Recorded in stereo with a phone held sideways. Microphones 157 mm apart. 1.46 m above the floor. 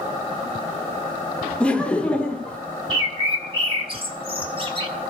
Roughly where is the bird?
Right.